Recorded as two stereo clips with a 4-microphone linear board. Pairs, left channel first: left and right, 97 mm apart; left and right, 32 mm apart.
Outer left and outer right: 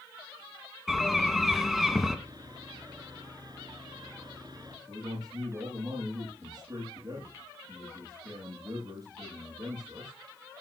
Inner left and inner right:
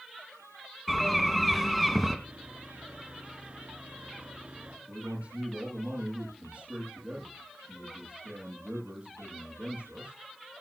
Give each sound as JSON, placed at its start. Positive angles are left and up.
{"t": 0.9, "sound": "a bird", "side_deg": 0, "distance_m": 2.5}
{"t": 2.2, "sound": "sawing", "side_deg": -45, "distance_m": 3.5}
{"t": 4.9, "sound": "a man speaking", "side_deg": -40, "distance_m": 8.5}